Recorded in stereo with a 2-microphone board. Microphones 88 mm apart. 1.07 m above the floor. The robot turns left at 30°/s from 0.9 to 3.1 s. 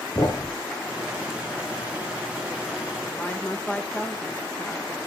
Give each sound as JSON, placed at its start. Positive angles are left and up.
{"t": 0.1, "sound": "a thud", "side_deg": 40, "distance_m": 2.0}
{"t": 3.1, "sound": "a woman speaking", "side_deg": 20, "distance_m": 1.4}